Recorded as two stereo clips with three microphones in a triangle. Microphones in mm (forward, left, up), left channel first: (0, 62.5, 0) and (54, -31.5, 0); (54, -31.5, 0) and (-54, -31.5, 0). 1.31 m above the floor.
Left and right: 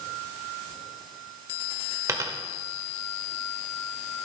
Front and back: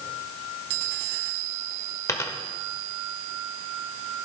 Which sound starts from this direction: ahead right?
A dropped coin, at 2.1 s.